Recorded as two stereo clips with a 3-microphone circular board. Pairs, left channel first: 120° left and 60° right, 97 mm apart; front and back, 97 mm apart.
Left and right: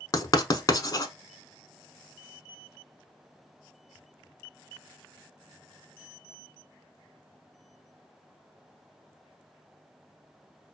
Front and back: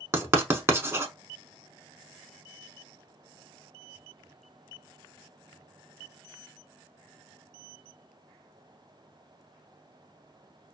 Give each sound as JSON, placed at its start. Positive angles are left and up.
{"t": 0.1, "sound": "writing", "azimuth_deg": 135, "distance_m": 0.7}